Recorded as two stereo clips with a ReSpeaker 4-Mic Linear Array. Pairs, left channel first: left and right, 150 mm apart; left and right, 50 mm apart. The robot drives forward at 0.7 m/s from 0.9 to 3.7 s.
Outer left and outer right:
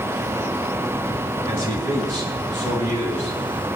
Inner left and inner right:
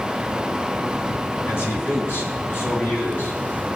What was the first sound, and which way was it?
A man speaking, 55° left (ahead or behind).